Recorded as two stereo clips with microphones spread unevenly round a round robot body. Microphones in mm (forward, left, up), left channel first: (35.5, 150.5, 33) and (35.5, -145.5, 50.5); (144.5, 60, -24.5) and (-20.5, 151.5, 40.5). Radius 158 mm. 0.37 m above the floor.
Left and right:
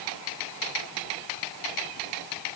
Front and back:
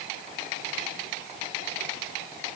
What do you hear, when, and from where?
Only background noise.